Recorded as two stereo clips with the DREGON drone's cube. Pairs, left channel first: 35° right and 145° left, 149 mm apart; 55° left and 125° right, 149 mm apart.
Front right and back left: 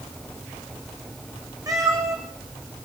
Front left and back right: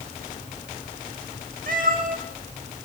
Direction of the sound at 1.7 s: 150° right.